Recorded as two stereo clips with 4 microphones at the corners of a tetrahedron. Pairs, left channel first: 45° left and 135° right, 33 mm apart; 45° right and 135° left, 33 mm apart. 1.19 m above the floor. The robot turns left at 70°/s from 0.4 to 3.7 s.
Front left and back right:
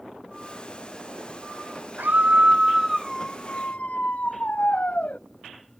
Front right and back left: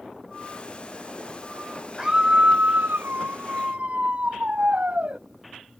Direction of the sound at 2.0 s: 155° right.